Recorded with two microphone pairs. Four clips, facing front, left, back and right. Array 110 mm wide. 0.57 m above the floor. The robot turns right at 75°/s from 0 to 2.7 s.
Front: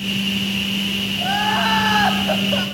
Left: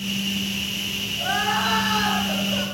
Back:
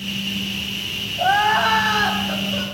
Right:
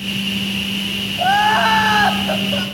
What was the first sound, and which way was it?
Crying, 125° right.